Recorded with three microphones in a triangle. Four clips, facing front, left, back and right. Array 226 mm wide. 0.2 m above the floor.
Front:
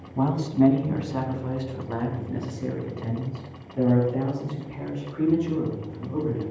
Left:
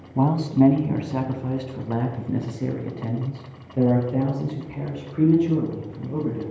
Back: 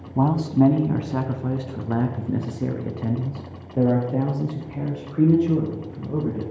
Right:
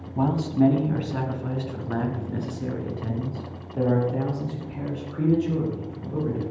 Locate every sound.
0.1 s a man speaking: 155° left, 1.6 m; by 6.4 s 165° left, 6.5 m